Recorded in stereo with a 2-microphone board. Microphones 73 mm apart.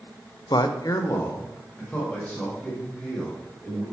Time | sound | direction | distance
0.5 | a man speaking | 75° left (ahead or behind) | 0.5 m